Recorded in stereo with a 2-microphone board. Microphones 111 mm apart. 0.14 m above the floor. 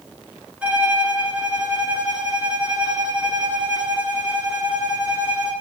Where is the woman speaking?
I don't hear a woman speaking.